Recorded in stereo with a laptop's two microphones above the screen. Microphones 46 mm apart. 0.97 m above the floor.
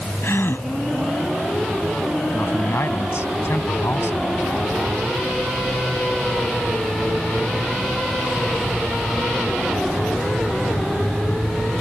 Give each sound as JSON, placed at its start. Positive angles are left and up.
{"t": 0.2, "sound": "a gasp", "side_deg": 60}
{"t": 2.3, "sound": "a man speaking", "side_deg": 70}